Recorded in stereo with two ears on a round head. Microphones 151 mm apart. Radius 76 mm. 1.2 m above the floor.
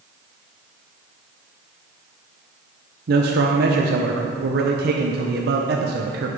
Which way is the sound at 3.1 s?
55° right (ahead or behind).